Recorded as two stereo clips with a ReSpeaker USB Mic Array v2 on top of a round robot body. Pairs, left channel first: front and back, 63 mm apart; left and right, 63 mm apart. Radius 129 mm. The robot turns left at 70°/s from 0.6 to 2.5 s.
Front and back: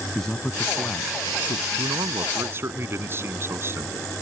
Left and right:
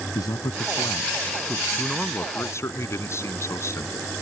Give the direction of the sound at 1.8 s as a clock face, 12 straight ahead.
6 o'clock.